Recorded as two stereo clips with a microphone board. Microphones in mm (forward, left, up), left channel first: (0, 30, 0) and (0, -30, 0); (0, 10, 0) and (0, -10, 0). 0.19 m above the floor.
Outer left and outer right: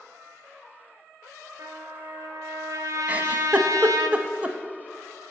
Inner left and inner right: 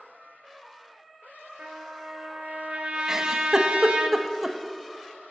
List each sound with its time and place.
1.6 s a trumpet: 65° right (ahead or behind), 1.2 m
3.1 s a giggle: 25° right (ahead or behind), 0.5 m